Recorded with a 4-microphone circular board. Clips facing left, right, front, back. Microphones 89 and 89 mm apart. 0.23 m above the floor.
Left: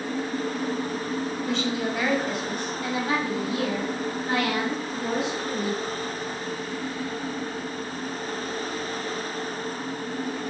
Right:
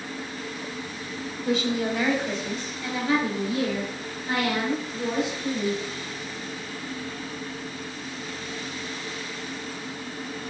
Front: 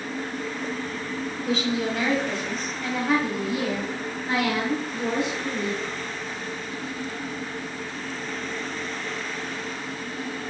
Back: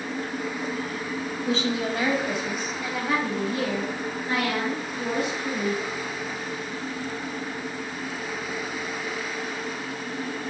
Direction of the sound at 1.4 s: 170° right.